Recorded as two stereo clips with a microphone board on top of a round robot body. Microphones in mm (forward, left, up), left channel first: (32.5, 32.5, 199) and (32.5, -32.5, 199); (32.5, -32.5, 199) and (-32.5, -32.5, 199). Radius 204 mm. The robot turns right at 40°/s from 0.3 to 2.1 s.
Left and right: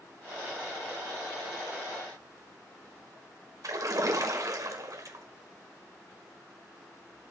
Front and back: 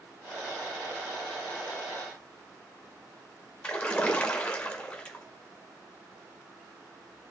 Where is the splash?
75° right, 2.0 m.